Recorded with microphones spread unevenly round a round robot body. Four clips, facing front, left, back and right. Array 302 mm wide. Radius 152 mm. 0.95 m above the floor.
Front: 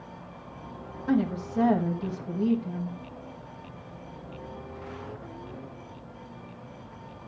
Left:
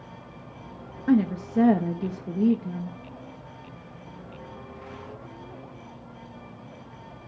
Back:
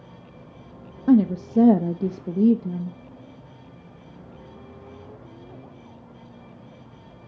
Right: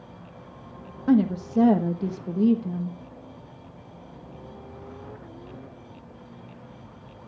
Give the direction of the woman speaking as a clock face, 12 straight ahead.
6 o'clock.